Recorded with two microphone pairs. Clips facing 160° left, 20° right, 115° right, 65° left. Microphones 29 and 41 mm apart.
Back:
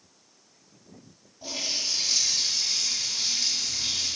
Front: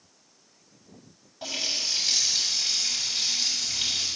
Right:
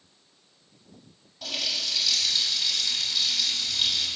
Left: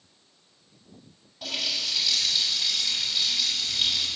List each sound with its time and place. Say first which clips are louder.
1.4 s a running tap: front 1 dB, even; 20° right, 5.5 m